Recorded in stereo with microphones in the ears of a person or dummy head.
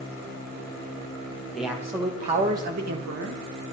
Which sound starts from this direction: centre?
A man speaking, at 1.5 s.